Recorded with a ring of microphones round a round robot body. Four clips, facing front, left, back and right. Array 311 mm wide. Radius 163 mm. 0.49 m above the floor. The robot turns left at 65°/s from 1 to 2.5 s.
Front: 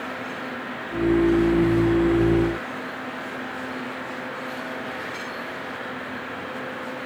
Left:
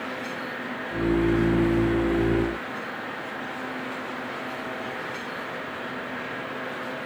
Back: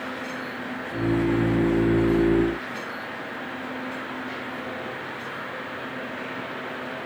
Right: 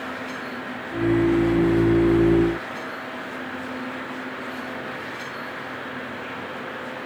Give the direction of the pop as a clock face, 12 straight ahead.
I don't hear a pop.